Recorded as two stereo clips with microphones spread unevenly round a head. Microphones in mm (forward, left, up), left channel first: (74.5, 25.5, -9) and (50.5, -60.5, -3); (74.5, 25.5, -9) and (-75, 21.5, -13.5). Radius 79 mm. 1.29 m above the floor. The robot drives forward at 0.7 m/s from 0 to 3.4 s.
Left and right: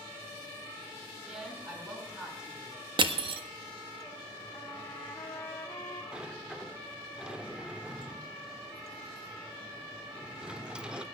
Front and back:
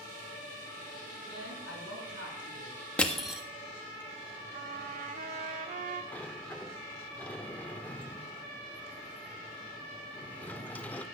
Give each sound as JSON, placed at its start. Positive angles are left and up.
{"t": 1.3, "sound": "a woman speaking", "azimuth_deg": -25, "distance_m": 7.5}
{"t": 3.0, "sound": "crushing", "azimuth_deg": -80, "distance_m": 1.3}
{"t": 4.5, "sound": "a trumpet", "azimuth_deg": 150, "distance_m": 1.5}
{"t": 6.1, "sound": "a sliding door", "azimuth_deg": -55, "distance_m": 0.9}